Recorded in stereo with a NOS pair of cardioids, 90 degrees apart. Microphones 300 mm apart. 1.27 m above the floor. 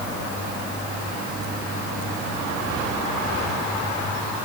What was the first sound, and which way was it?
Only background noise.